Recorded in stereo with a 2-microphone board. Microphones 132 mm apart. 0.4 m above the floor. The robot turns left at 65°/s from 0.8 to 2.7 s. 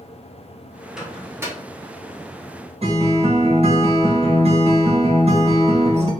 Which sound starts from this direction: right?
A guitar, at 2.8 s.